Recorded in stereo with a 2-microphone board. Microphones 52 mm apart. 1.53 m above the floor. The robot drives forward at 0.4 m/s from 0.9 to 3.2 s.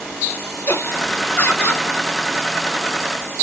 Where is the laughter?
50° left (ahead or behind), 1.4 m; by 1.9 s 40° left (ahead or behind), 1.7 m.